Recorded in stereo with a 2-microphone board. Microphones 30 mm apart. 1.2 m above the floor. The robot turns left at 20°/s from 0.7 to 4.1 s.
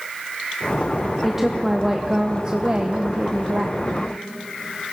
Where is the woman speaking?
10° right, 0.7 m; by 4.1 s 65° right, 0.7 m.